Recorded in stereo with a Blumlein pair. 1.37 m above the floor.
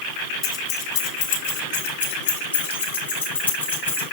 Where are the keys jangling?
40° left, 1.2 m; by 4.0 s 75° left, 2.5 m.